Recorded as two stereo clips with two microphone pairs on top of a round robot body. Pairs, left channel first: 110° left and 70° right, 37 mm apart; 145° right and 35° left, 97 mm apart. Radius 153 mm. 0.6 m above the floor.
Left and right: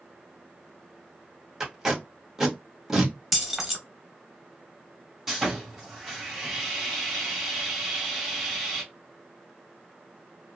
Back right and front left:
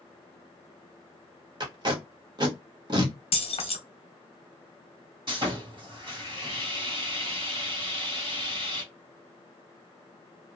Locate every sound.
1.6 s tape being pulled: straight ahead, 1.4 m
3.3 s keys jangling: 155° right, 1.1 m
5.3 s sawing: straight ahead, 2 m